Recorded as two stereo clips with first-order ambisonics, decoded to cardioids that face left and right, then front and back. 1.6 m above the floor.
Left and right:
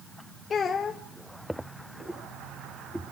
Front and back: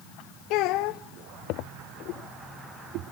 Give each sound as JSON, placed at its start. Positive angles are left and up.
{"t": 0.5, "sound": "a child speaking", "azimuth_deg": 25, "distance_m": 0.8}